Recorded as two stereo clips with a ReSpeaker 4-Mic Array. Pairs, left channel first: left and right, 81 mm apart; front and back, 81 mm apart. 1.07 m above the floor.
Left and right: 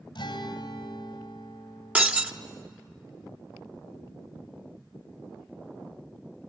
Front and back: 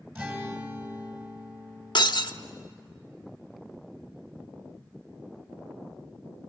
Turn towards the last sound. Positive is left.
turn(degrees=-20)